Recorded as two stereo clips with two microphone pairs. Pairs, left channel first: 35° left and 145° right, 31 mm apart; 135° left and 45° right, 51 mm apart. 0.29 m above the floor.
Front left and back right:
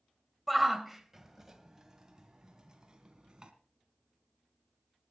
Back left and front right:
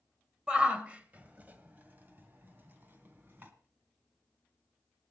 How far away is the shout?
About 1.3 m.